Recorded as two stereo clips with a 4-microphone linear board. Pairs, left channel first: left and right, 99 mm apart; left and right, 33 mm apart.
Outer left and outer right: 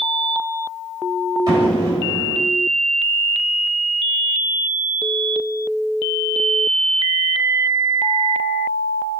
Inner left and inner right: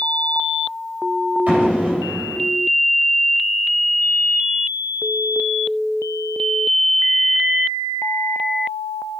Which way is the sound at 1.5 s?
45° right (ahead or behind).